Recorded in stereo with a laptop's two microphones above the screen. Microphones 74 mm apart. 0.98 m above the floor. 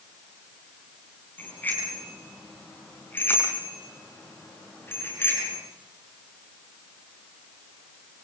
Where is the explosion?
No explosion in this recording.